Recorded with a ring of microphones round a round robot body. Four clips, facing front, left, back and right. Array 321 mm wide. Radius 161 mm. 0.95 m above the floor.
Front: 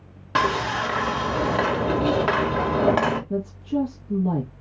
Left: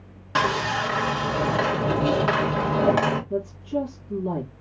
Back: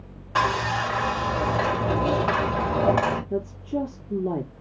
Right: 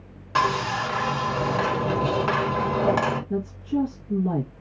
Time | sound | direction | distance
0.3 | sawing | 5° left | 2 m
3.3 | a woman speaking | 25° right | 1.5 m